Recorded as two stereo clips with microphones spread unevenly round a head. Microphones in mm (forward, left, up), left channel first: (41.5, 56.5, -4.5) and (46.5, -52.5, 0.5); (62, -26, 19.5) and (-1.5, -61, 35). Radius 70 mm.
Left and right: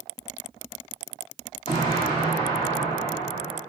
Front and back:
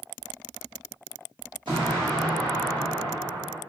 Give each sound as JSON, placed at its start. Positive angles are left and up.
{"t": 1.7, "sound": "an explosion", "azimuth_deg": 160, "distance_m": 0.7}